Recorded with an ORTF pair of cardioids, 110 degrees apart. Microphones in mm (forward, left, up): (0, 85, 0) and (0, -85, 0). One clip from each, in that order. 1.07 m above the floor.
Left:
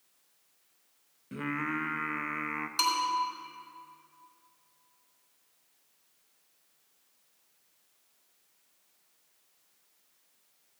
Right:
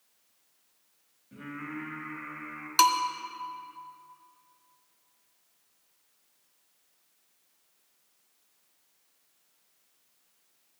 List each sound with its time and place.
1.3 s singing: 60° left, 0.8 m
2.8 s a bell: 45° right, 1.4 m